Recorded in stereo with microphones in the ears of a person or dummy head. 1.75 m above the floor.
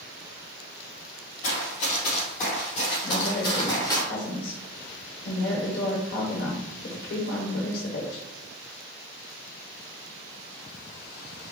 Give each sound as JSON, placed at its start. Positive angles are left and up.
{"t": 1.4, "sound": "running footsteps", "side_deg": 40, "distance_m": 2.0}
{"t": 3.0, "sound": "a woman speaking", "side_deg": 75, "distance_m": 1.4}